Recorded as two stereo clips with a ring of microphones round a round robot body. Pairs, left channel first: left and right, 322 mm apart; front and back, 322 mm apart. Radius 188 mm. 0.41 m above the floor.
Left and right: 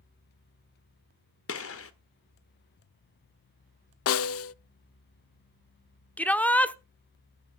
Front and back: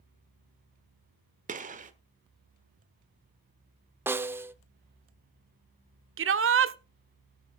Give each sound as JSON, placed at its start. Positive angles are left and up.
{"t": 1.5, "sound": "a gunshot", "azimuth_deg": 120, "distance_m": 1.4}
{"t": 4.1, "sound": "a snare drum", "azimuth_deg": 100, "distance_m": 0.5}
{"t": 6.2, "sound": "a shout", "azimuth_deg": 175, "distance_m": 1.2}